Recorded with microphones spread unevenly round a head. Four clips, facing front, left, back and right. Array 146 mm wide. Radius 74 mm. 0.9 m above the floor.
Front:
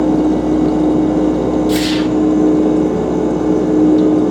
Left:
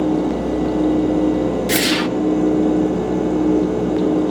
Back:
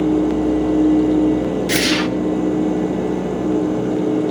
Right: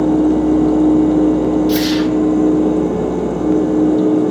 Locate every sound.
1.7 s a whoosh: 130° left, 0.5 m